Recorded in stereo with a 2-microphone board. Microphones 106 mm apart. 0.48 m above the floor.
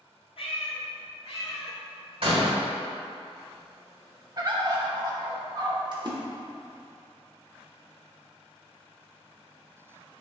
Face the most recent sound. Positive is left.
turn(degrees=-45)  # may be behind; listen again after turning